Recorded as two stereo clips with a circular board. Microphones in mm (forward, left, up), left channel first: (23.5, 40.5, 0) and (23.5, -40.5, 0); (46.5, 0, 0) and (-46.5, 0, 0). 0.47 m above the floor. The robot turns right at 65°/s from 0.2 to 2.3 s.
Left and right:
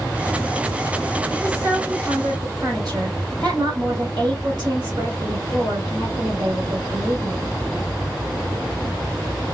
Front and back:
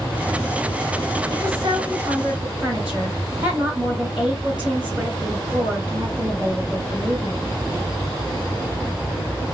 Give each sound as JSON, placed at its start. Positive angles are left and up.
{"t": 1.3, "sound": "a woman speaking", "azimuth_deg": -170, "distance_m": 3.0}